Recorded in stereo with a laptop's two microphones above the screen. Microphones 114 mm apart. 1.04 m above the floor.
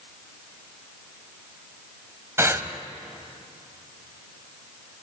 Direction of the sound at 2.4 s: 20° right (ahead or behind).